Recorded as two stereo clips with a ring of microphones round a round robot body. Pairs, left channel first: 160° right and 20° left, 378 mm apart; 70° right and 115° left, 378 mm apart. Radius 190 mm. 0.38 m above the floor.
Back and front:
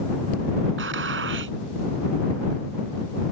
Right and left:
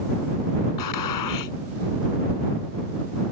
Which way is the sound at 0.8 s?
35° right.